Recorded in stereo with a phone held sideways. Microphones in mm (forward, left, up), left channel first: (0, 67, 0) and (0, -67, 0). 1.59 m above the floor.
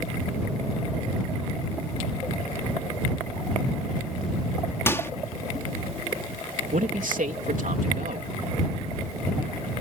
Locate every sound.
4.9 s a microwave: 20° left (ahead or behind)
6.7 s a man speaking: 80° right